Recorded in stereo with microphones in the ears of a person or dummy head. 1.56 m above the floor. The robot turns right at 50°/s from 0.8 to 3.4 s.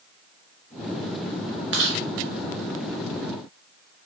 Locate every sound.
1.7 s chewing: 60° right (ahead or behind), 0.5 m; by 2.0 s 70° right (ahead or behind), 0.5 m